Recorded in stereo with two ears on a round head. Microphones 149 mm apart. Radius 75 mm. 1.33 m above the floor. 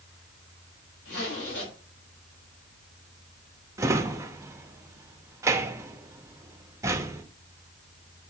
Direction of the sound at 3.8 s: 20° right (ahead or behind).